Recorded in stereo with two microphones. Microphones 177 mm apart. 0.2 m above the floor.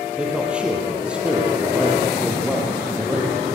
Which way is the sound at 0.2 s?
5° right (ahead or behind).